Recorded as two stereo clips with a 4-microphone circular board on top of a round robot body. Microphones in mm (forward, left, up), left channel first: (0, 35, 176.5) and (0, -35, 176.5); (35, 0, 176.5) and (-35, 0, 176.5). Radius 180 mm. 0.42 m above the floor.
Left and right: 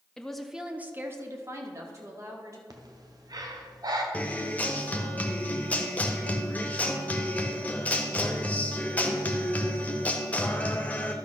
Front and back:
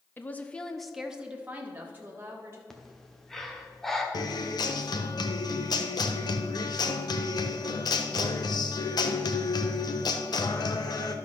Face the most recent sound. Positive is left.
turn(degrees=20)